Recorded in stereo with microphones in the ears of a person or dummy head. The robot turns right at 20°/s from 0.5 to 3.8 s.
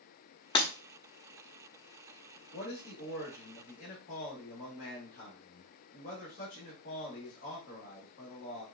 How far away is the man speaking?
About 2 m.